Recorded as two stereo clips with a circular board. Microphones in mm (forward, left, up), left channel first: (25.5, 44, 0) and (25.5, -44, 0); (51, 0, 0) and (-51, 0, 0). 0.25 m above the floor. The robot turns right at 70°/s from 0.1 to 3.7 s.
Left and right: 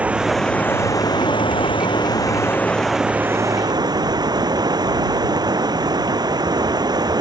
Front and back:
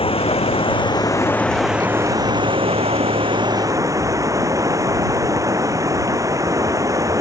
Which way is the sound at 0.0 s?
15° right.